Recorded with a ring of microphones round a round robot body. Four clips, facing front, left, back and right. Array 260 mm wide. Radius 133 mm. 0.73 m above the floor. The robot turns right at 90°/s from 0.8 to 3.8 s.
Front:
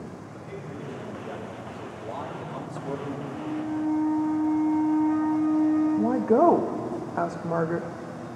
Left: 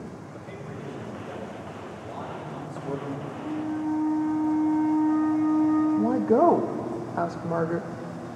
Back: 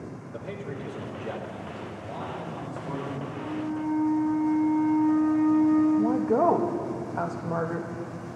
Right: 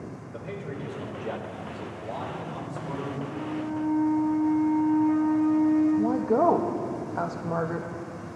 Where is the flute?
90° right, 3.5 m; by 5.9 s 45° right, 3.5 m.